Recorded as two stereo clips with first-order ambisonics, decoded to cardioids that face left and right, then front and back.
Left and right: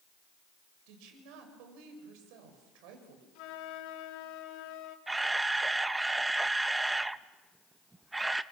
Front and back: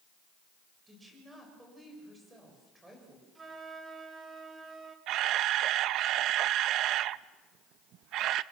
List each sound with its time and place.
0.9 s a woman speaking: 100° right, 6.5 m
3.4 s a flute: 105° left, 2 m
5.1 s a camera shutter: 170° right, 0.6 m